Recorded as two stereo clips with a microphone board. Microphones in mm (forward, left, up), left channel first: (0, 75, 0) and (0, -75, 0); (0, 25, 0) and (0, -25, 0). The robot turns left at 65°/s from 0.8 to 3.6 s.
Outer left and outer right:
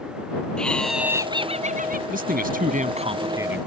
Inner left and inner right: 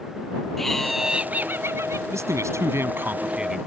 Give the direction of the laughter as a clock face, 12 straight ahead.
12 o'clock.